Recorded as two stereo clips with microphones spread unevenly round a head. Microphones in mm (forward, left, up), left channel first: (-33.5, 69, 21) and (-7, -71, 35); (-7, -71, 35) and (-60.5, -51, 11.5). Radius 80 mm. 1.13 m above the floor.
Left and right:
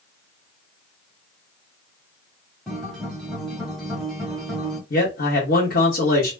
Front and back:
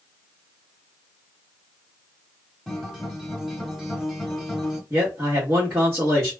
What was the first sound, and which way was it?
A guitar, straight ahead.